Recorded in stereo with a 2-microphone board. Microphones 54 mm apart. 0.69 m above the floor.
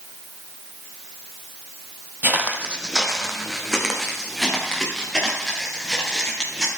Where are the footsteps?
35° right (ahead or behind), 1.4 m; by 6.7 s 15° left (ahead or behind), 7.5 m.